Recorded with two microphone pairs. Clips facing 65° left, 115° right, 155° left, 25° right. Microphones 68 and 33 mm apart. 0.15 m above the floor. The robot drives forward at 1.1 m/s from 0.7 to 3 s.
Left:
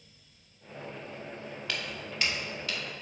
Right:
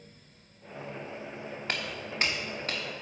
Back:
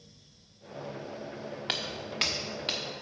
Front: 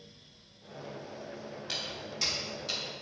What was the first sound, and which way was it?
Footsteps, 170° right.